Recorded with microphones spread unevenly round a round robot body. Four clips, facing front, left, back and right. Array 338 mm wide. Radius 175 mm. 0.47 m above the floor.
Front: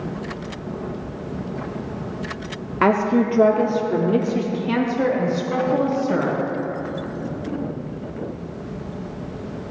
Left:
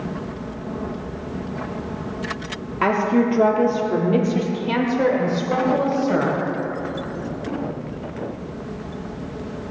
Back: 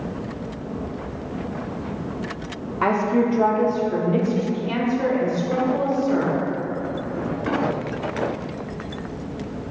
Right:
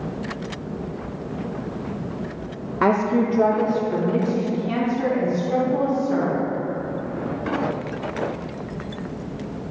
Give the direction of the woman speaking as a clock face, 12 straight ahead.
1 o'clock.